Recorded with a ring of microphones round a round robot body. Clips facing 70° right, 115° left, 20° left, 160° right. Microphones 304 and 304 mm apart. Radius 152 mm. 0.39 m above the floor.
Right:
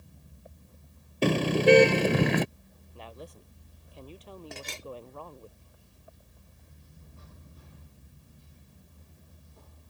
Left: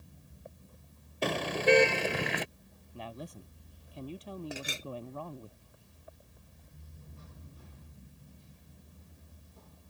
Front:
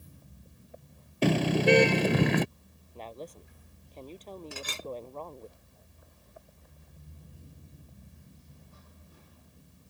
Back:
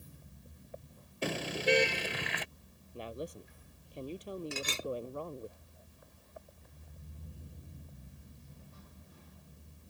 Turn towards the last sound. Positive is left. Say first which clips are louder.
# left 2 dB, back 2 dB
turn(degrees=-170)